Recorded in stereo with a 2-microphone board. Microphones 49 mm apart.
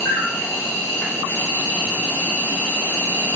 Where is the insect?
40° left (ahead or behind), 1.1 m.